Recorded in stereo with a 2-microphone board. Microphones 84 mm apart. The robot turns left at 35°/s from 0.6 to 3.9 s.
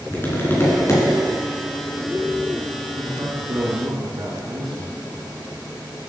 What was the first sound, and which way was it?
Tapping, 30° left (ahead or behind).